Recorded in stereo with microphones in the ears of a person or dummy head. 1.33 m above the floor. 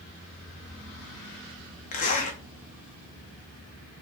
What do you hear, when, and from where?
1.9 s a zipper: 40° left (ahead or behind), 0.9 m